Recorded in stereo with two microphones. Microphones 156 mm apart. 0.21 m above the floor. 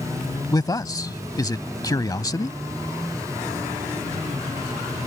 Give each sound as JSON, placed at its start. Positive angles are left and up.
{"t": 0.5, "sound": "a man speaking", "side_deg": 25}